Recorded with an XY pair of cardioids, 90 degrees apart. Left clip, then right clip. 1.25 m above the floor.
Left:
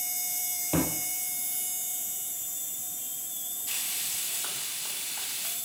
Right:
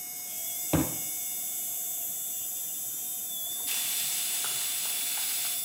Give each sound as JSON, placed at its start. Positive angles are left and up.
{"t": 0.7, "sound": "a thud", "azimuth_deg": -30, "distance_m": 3.5}
{"t": 3.7, "sound": "frying", "azimuth_deg": -15, "distance_m": 6.0}